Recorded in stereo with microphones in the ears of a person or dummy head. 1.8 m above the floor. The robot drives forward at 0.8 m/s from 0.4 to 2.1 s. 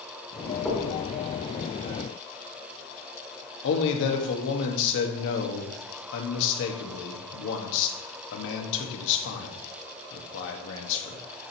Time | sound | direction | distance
0.7 | knocking | 5° left (ahead or behind) | 1.8 m
3.6 | a man speaking | 65° left (ahead or behind) | 1.3 m